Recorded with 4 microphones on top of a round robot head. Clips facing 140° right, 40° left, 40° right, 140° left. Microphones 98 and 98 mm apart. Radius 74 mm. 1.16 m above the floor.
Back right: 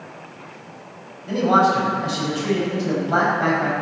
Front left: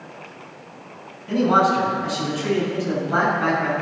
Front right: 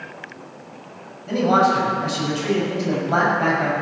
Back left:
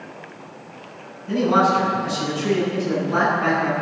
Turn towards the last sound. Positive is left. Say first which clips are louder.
# back right 1 dB, front right 1 dB
turn(degrees=-75)